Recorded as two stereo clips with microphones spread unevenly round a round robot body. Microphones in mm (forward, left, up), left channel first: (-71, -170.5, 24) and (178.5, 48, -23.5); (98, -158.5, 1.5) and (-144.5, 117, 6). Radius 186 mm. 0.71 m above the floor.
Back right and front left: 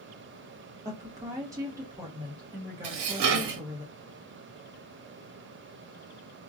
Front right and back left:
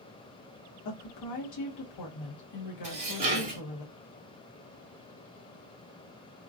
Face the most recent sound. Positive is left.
turn(degrees=55)